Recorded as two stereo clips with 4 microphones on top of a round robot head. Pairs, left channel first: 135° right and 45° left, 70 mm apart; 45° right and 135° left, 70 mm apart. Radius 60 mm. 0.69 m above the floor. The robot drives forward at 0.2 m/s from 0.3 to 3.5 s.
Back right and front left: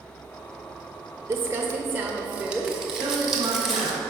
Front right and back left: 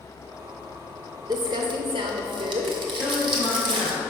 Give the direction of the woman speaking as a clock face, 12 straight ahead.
8 o'clock.